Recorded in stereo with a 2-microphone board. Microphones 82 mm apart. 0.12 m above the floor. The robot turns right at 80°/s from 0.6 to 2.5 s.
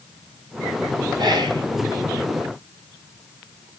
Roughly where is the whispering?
Right.